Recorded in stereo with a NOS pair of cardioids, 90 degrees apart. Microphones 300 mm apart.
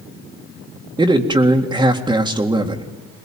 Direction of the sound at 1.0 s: 15° right.